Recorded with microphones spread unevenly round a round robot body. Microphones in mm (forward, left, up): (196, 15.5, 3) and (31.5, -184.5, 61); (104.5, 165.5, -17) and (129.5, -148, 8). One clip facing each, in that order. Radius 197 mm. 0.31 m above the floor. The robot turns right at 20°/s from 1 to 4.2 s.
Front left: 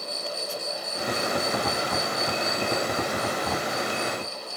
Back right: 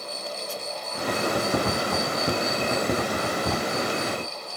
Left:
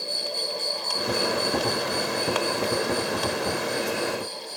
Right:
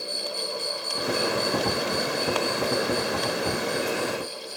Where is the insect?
70° left; by 4.6 s 135° left.